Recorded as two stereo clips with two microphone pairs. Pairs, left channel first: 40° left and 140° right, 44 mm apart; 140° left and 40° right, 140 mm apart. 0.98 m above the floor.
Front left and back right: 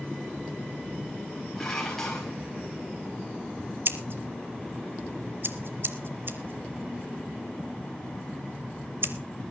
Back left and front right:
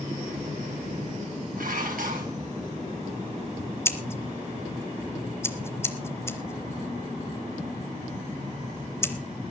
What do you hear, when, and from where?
1.6 s dishes clattering: 40° right, 4.5 m
3.9 s scissors: 150° right, 1.4 m